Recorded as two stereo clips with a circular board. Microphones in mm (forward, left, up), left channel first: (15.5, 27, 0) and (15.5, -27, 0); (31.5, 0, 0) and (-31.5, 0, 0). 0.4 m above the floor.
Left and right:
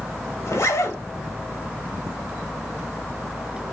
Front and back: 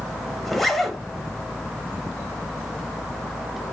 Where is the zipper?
90° left, 0.8 m.